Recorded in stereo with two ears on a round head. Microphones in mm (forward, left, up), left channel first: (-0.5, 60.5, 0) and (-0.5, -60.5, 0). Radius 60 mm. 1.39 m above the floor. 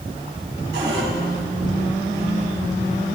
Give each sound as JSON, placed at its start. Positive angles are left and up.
{"t": 0.7, "sound": "a cupboard door", "side_deg": -80, "distance_m": 4.5}